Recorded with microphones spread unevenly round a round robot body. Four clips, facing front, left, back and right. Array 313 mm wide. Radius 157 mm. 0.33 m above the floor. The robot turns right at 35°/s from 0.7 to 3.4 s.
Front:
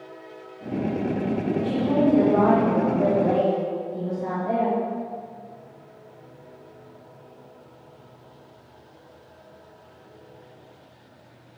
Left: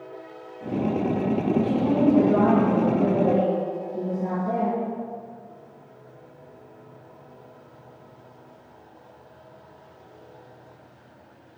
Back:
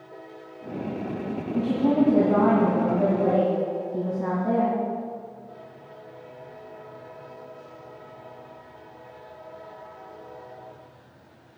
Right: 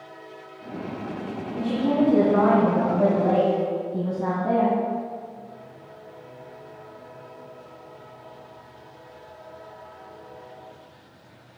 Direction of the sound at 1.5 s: 165° left.